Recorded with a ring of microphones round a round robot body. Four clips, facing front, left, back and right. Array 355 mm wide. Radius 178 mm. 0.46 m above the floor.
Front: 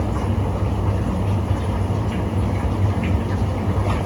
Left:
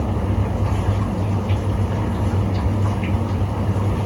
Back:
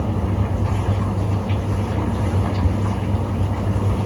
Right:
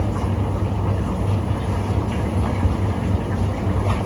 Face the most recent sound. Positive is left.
No sound to turn to.